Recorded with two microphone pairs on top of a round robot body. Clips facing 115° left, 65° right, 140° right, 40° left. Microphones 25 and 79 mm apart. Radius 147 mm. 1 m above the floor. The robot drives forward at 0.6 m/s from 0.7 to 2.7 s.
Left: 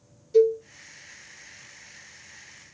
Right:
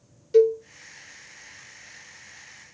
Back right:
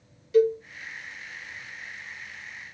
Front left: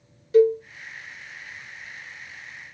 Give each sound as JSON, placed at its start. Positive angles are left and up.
{"t": 0.3, "sound": "a cowbell", "azimuth_deg": -15, "distance_m": 1.5}